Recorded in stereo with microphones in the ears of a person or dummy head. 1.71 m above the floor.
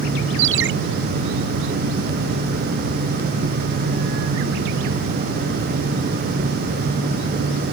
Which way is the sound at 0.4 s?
80° right.